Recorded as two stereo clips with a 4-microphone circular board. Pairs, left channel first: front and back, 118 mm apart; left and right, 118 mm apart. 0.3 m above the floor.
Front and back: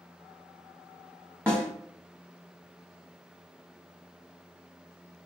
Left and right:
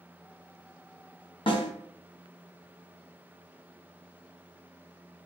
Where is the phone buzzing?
No phone buzzing in this recording.